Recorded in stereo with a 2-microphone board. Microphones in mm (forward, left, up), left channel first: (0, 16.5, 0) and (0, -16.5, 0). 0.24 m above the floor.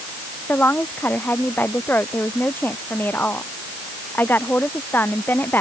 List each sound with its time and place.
0.5 s a woman speaking: 75° left (ahead or behind); by 5.6 s 80° left